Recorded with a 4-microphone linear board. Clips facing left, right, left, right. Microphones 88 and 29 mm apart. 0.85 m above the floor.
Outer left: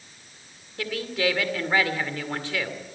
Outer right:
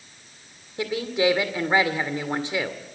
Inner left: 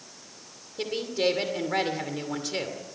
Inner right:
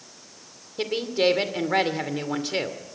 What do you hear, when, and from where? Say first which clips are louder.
0.8 s a woman speaking: outer right 4 dB, inner right 4 dB; 20° right (ahead or behind), 2.5 m